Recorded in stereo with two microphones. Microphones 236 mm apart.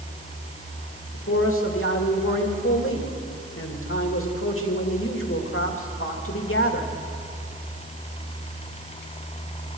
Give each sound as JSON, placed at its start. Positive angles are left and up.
{"t": 1.1, "sound": "a man speaking", "side_deg": 60, "distance_m": 2.5}